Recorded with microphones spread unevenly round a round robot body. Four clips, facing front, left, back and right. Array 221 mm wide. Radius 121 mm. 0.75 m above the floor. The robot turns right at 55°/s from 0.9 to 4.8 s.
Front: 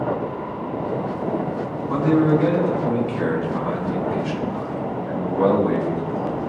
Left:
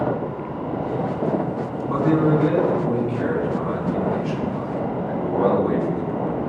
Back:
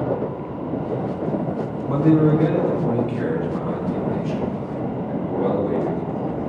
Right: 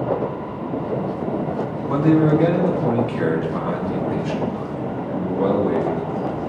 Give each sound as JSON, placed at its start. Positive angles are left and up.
{"t": 1.9, "sound": "a man speaking", "azimuth_deg": -150, "distance_m": 4.0}